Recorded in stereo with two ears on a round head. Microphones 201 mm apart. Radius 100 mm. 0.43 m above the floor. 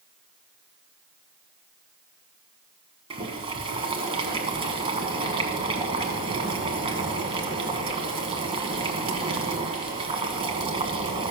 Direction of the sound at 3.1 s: 25° right (ahead or behind).